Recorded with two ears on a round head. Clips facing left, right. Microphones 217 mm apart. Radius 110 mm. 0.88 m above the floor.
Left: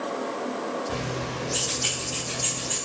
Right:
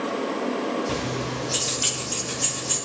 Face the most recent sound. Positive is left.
turn(degrees=-65)  # may be behind; listen again after turning